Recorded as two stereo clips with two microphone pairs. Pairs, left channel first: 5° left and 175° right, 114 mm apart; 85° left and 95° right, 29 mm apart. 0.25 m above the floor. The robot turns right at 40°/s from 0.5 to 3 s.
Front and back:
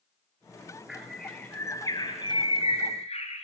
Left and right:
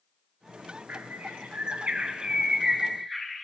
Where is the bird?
90° right, 2 m; by 3.4 s 5° right, 2 m.